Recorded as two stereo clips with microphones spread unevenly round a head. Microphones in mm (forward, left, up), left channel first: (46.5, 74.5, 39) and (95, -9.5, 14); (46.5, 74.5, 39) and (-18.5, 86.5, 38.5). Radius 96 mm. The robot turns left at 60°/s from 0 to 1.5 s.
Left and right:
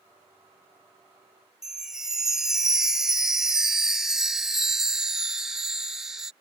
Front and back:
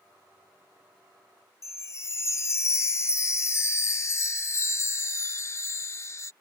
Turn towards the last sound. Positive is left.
turn(degrees=35)